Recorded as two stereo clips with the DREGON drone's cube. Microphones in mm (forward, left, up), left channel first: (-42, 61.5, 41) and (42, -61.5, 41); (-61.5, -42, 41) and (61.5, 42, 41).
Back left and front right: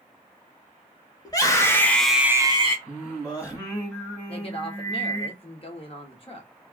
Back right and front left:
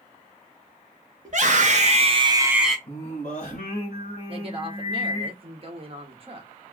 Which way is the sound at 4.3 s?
80° left.